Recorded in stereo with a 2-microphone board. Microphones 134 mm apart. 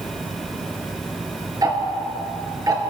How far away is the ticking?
About 2.0 m.